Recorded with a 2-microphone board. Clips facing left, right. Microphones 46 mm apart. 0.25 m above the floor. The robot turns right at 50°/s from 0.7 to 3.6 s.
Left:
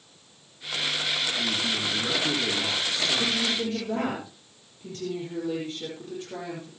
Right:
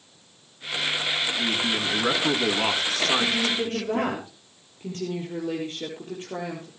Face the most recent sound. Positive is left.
turn(degrees=-35)  # may be behind; listen again after turning